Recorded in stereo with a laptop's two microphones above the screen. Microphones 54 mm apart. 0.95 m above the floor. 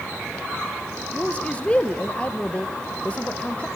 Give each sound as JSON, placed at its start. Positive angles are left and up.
{"t": 1.1, "sound": "a man speaking", "side_deg": 20, "distance_m": 0.6}